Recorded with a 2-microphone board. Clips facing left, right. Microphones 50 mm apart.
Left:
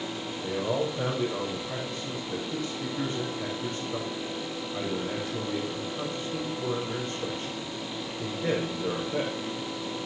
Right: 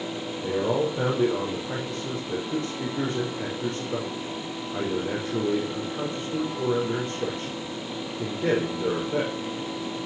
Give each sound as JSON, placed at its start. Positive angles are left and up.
{"t": 0.4, "sound": "a man speaking", "side_deg": -50, "distance_m": 5.5}